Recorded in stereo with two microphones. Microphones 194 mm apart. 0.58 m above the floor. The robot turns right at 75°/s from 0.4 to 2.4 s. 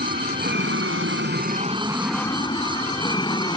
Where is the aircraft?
130° right; by 3.6 s 20° left.